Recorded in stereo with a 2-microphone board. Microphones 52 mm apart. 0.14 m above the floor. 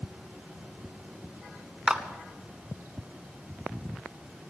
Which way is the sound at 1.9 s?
20° right (ahead or behind).